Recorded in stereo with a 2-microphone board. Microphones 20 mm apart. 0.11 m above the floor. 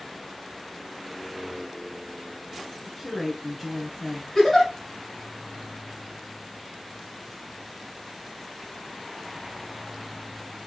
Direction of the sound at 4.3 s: 20° left (ahead or behind).